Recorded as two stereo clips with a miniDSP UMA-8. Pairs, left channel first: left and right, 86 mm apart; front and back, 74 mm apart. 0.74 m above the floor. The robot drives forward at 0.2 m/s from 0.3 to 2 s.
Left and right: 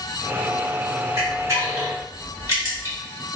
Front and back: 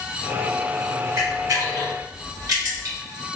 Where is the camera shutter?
140° right, 1.4 m; by 3.0 s 145° right, 1.6 m.